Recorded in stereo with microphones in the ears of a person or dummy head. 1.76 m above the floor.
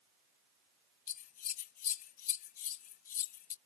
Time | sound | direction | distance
1.1 | scissors | 45° left (ahead or behind) | ?